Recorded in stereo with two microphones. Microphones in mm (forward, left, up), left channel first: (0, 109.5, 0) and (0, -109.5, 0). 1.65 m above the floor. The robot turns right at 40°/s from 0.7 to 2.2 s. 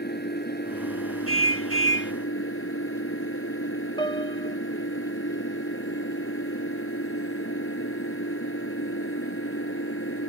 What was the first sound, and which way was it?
An engine running, 50° left.